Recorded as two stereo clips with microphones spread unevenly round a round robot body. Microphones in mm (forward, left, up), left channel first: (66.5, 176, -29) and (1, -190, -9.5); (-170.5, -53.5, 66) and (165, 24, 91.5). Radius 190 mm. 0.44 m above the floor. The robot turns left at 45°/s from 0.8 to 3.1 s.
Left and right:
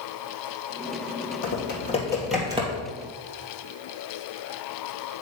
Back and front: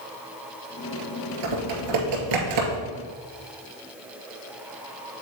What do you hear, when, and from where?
1.4 s typing on a keyboard: 30° left, 2.0 m; by 2.8 s 35° right, 2.0 m